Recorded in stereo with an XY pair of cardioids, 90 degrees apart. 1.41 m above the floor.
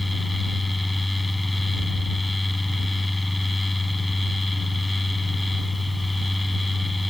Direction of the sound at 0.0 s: 15° left.